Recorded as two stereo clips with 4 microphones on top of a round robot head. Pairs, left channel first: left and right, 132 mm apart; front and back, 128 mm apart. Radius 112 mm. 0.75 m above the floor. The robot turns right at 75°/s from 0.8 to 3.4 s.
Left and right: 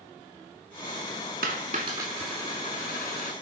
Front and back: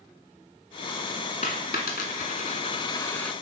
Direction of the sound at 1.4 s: 60° right.